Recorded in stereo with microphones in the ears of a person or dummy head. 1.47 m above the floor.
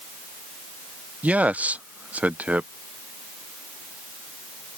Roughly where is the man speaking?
Centre.